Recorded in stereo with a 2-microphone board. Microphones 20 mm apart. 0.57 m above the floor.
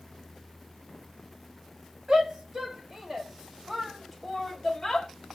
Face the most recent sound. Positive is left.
turn(degrees=25)  # may be behind; listen again after turning